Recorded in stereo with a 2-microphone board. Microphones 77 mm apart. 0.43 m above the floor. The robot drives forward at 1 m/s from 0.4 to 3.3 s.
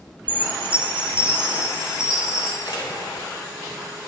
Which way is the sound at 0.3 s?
20° right (ahead or behind).